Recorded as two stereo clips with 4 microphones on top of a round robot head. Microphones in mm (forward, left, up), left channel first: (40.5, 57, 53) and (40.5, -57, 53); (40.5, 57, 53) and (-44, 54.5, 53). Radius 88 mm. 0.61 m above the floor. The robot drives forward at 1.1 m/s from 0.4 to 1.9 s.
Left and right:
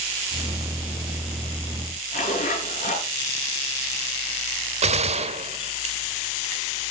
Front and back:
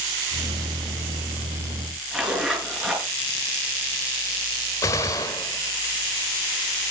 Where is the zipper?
95° left, 6.5 m.